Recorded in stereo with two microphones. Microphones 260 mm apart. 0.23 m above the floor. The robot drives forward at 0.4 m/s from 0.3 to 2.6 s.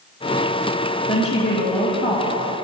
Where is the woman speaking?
20° left (ahead or behind), 1.3 m; by 2.4 s 25° left (ahead or behind), 1.2 m.